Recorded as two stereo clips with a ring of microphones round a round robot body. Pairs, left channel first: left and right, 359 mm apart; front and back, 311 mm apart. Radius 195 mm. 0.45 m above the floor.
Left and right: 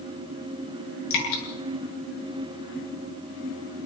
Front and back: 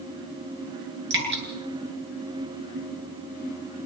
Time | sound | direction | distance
1.1 | dripping | 125° left | 8 m